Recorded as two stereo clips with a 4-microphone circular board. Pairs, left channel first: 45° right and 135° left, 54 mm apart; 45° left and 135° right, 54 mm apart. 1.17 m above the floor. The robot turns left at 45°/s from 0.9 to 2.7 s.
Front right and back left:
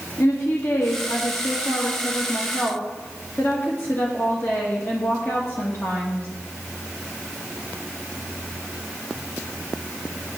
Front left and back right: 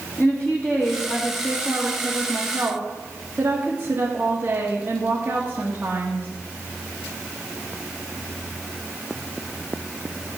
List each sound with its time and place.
0.2 s a woman speaking: 10° right, 1.8 m; by 6.3 s 90° right, 1.8 m